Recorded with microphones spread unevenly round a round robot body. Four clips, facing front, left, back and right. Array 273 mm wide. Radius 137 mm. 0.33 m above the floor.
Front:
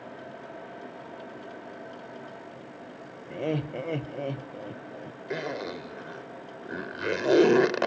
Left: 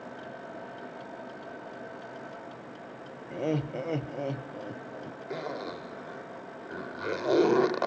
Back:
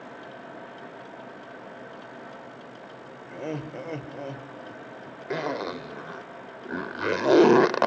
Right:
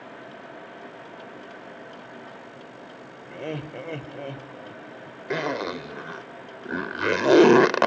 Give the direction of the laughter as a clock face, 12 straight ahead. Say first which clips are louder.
Left 3 dB, front 4 dB; 11 o'clock.